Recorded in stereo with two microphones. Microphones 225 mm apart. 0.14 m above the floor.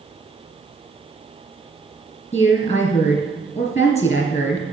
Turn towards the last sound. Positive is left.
turn(degrees=30)  # may be behind; listen again after turning